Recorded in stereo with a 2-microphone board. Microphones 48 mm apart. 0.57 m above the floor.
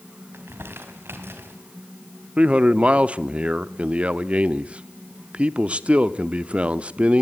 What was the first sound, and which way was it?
Crumpling, 60° right (ahead or behind).